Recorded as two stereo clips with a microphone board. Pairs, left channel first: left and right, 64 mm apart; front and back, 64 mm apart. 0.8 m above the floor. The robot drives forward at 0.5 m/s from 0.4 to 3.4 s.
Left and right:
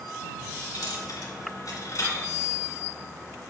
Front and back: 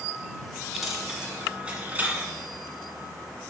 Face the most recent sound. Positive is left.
turn(degrees=130)